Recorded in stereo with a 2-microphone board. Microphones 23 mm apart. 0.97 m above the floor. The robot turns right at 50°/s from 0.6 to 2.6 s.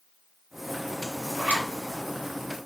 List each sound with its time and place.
1.4 s a zipper: 50° right (ahead or behind), 1.7 m; by 1.7 s 65° right (ahead or behind), 1.7 m